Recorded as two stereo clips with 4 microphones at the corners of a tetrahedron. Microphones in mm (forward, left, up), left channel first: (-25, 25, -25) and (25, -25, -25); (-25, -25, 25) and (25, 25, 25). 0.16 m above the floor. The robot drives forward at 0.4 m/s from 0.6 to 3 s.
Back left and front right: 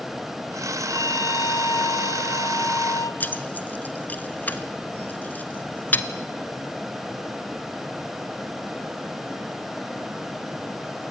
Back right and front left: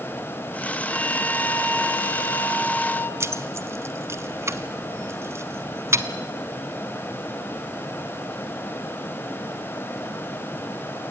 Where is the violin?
155° left, 0.6 m; by 3.1 s 170° left, 1.4 m.